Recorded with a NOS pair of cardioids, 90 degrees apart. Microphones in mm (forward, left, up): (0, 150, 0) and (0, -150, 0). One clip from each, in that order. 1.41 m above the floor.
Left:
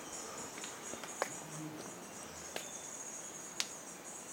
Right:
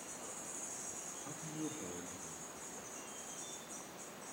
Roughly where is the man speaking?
Ahead right.